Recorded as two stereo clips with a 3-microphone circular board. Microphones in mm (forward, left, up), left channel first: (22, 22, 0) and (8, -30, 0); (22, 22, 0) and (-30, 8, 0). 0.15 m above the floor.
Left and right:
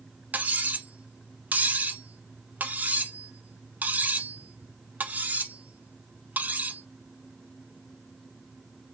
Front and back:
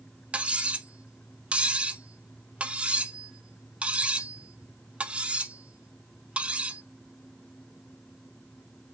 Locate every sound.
0.3 s cutlery clinking: 120° right, 0.8 m